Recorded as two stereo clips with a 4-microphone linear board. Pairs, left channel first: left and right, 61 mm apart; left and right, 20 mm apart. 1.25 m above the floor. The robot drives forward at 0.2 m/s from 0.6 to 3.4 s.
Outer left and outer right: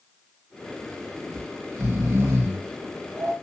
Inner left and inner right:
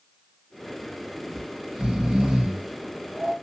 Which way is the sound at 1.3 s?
45° right (ahead or behind).